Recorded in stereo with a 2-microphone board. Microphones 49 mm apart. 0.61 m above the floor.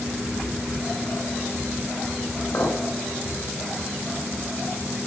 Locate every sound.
2.5 s a clink: 60° left (ahead or behind), 1.3 m